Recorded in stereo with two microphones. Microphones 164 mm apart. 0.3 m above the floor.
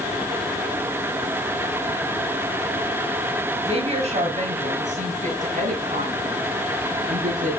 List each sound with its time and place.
3.6 s a woman speaking: 40° right (ahead or behind), 1.7 m; by 7.6 s 60° right (ahead or behind), 4 m